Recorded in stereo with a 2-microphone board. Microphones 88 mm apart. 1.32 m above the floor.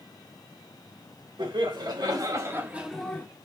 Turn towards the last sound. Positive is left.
turn(degrees=20)  # may be behind; listen again after turning